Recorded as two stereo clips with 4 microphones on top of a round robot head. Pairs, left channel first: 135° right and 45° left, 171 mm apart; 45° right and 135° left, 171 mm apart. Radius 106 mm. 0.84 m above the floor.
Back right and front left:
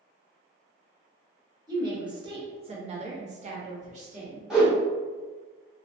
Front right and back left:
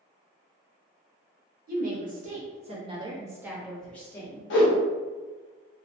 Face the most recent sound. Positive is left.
turn(degrees=-40)